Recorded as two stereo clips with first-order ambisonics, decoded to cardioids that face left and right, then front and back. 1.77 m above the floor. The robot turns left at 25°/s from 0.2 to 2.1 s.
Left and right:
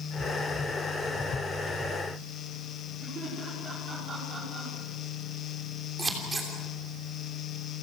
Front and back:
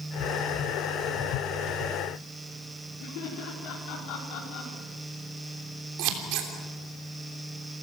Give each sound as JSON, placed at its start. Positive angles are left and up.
{"t": 3.0, "sound": "laughter", "azimuth_deg": -30, "distance_m": 5.0}
{"t": 6.0, "sound": "scissors", "azimuth_deg": -165, "distance_m": 3.0}